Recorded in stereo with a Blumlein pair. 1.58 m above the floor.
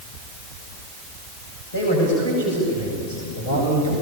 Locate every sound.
1.7 s a man speaking: 70° left, 8.5 m; by 3.9 s 75° left, 9 m